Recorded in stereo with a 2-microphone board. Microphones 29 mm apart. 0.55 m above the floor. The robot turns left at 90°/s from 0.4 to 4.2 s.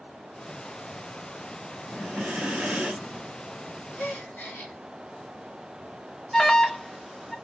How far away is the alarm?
About 0.6 m.